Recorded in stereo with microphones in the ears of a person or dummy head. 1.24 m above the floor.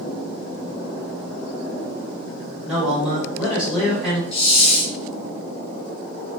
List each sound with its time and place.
2.6 s a man speaking: 5° right (ahead or behind), 1.6 m
4.3 s a hiss: 35° left (ahead or behind), 0.6 m